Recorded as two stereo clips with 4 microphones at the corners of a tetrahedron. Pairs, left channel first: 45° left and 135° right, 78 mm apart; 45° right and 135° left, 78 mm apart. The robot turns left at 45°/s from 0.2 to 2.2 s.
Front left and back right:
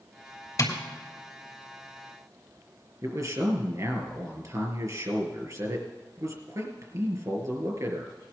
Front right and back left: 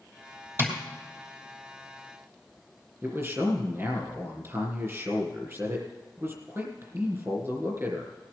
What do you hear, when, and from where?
0.6 s tapping: 85° left, 3 m; by 0.7 s 75° left, 3 m
3.0 s a man speaking: straight behind, 3.5 m